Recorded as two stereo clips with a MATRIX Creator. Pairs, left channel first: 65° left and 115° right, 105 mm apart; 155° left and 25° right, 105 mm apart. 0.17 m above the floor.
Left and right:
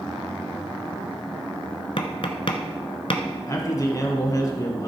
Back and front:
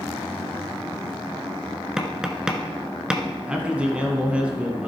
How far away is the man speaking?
About 2.0 m.